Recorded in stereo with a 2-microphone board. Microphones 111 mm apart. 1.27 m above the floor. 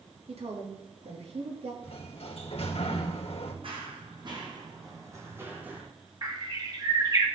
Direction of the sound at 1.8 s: 70° left (ahead or behind).